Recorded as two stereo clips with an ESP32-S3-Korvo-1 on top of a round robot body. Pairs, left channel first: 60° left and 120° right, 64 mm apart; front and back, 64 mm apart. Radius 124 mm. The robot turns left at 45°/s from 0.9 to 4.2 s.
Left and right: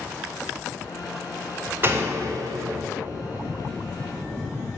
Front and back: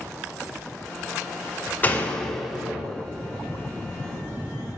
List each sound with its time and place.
1.8 s a door slam: 65° right, 2 m; by 2.9 s 110° right, 2 m